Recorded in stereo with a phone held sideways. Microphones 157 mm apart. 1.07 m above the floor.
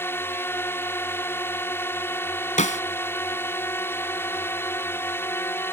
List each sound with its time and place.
0.0 s a drone: 15° left (ahead or behind)
2.6 s a snare drum: 55° left (ahead or behind)